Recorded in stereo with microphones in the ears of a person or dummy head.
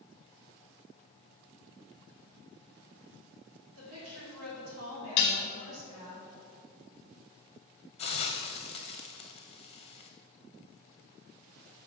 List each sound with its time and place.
3.8 s a woman speaking: 85° right, 3 m
5.2 s dishes clattering: 50° left (ahead or behind), 0.8 m
8.0 s a hiss: 30° left (ahead or behind), 0.7 m